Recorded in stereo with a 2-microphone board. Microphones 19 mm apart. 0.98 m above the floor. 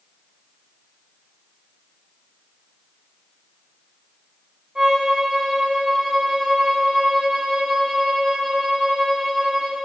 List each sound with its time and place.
4.8 s a violin: 55° right (ahead or behind), 1.4 m